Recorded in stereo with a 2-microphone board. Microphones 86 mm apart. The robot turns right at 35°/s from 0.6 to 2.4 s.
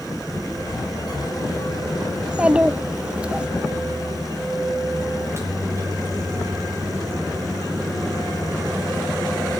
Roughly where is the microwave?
Right.